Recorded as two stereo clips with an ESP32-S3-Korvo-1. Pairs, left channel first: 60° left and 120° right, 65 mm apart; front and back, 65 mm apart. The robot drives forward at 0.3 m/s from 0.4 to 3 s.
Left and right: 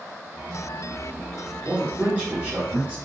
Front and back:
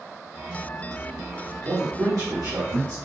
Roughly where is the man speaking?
Behind.